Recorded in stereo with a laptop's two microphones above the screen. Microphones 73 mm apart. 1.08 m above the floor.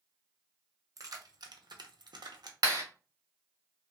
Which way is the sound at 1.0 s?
55° right (ahead or behind).